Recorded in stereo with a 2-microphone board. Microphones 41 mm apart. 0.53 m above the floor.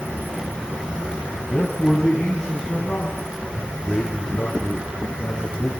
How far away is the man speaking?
About 3.5 m.